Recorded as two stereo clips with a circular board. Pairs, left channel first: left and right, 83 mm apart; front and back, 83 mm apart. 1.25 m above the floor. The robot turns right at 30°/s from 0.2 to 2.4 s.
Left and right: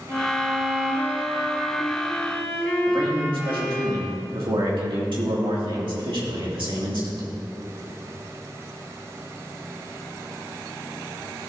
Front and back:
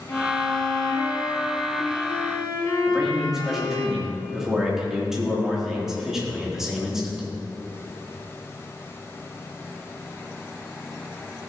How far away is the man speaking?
About 2.5 m.